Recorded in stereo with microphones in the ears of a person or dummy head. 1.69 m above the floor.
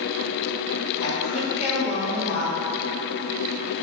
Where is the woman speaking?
35° left (ahead or behind), 1.6 m.